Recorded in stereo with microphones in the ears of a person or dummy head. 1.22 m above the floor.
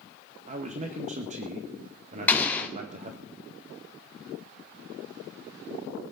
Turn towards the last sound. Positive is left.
turn(degrees=5)  # may be behind; listen again after turning